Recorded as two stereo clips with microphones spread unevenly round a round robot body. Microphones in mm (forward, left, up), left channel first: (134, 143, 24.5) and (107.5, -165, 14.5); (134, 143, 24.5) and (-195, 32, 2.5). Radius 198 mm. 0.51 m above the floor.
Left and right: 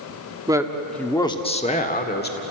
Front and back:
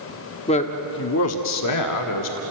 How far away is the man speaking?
About 1.3 m.